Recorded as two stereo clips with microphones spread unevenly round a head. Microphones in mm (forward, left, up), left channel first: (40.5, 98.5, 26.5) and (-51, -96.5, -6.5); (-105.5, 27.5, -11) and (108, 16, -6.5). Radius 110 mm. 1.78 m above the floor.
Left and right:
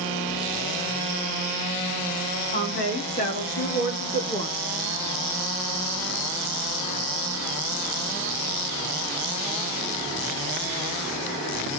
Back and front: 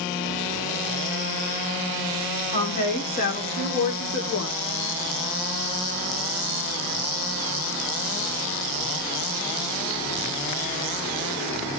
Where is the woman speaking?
120° left, 4.5 m; by 4.6 s 140° left, 2 m.